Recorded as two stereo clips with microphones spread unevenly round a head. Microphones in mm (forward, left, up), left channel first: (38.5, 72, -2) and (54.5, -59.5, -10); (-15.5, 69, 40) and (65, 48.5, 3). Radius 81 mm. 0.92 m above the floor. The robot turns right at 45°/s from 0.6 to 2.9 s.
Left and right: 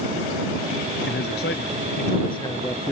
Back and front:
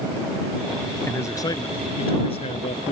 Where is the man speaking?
105° left; by 2.9 s 170° right.